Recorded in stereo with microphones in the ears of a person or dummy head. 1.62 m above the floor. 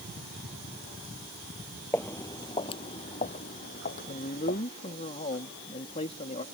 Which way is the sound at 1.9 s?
10° left (ahead or behind).